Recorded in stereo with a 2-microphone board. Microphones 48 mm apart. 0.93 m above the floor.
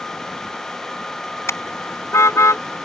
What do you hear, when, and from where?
1.5 s a car horn: 80° left